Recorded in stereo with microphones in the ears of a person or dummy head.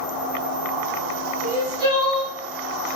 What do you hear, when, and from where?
1.4 s crying: 20° right (ahead or behind), 1.1 m